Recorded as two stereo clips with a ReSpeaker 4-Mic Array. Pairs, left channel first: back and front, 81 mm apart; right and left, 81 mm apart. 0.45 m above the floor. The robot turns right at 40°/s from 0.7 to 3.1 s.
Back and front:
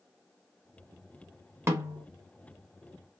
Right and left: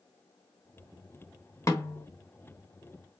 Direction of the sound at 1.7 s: 50° right.